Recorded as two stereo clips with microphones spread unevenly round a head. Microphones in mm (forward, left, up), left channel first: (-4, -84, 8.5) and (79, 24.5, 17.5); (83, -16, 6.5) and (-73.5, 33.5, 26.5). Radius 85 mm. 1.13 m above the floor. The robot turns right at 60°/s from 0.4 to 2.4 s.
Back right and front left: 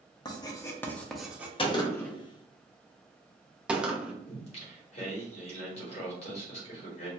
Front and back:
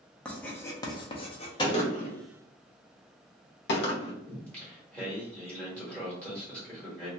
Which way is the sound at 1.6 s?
80° right.